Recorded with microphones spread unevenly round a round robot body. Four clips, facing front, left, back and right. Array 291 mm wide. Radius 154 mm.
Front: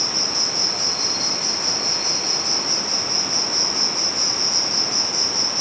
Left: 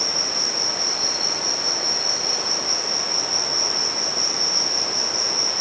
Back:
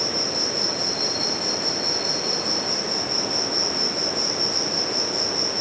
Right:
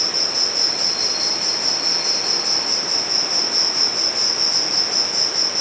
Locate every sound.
0.0 s an insect: 55° right, 7.5 m